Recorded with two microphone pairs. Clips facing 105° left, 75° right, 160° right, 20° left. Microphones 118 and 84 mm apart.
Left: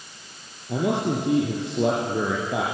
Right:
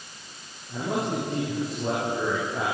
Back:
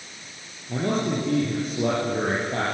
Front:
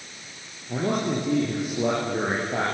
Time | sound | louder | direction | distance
0.7 | a man speaking | left 4 dB, even | 100° left | 7 m